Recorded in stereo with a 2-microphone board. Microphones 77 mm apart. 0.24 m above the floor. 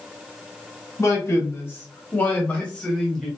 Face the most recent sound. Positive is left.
turn(degrees=0)  # may be behind; listen again after turning